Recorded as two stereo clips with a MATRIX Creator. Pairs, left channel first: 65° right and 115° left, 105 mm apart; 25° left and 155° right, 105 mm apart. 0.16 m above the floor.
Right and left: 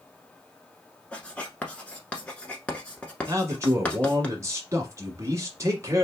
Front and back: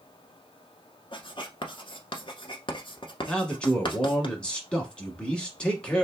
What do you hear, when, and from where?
1.1 s writing: 10° left, 1.0 m
3.3 s a man speaking: 90° left, 1.2 m